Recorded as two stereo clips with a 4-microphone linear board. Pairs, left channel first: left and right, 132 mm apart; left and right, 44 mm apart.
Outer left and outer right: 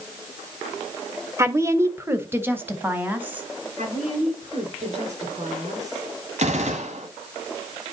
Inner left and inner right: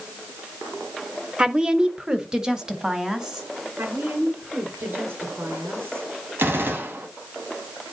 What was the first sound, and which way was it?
A woman speaking, 20° right (ahead or behind).